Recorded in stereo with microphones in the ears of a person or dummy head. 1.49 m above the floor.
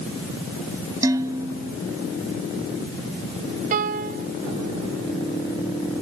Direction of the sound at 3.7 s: 55° right (ahead or behind).